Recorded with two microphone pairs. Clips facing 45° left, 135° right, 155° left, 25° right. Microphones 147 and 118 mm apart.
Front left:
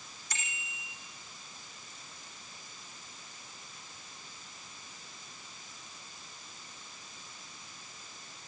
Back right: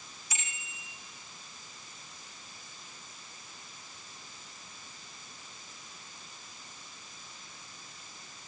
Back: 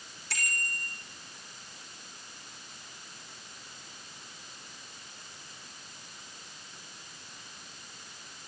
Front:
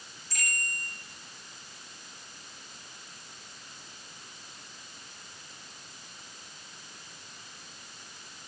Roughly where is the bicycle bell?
Behind left.